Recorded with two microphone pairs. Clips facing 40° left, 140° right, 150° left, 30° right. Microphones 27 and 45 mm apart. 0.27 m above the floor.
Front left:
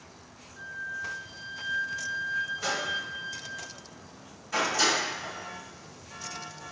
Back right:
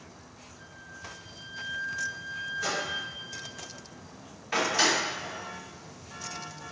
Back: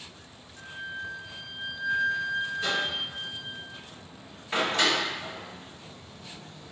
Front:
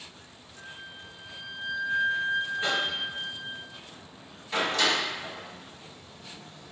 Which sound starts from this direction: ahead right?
A microwave, at 2.6 s.